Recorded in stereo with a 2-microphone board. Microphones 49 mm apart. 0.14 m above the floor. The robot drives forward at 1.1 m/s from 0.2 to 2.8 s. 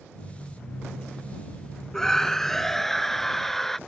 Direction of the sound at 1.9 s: 10° left (ahead or behind).